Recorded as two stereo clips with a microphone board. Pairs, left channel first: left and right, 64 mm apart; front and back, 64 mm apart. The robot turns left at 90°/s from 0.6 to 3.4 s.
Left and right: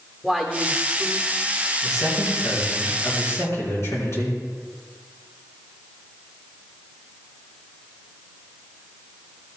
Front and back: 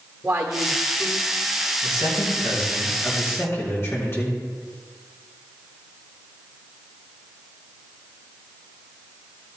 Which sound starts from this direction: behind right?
A woman speaking, at 0.2 s.